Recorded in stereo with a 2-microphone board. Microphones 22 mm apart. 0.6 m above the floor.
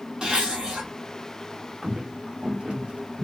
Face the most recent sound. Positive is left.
turn(degrees=-60)  # may be behind; listen again after turning